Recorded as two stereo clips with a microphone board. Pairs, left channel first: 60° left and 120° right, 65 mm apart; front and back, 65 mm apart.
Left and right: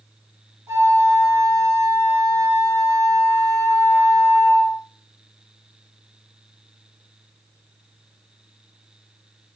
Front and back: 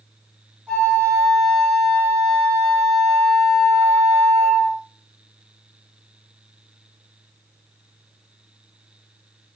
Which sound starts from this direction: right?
A flute, at 0.7 s.